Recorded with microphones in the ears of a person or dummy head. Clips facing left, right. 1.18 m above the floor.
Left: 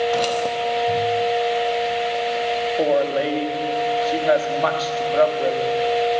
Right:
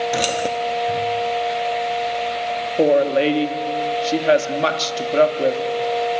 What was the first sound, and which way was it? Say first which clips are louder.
Keys jangling: even; 20° right (ahead or behind).